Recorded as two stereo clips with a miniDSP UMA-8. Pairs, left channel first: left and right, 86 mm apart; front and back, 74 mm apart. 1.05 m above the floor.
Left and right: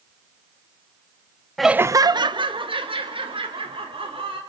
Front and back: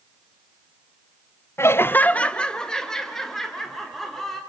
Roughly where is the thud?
No thud in this recording.